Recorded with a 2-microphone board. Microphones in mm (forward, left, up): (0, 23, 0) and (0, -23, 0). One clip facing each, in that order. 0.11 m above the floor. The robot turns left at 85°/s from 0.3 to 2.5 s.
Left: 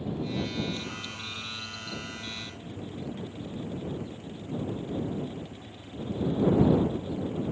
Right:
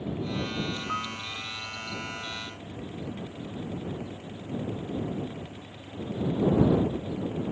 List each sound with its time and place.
0.9 s a piano: 85° right; by 1.2 s 60° right (ahead or behind)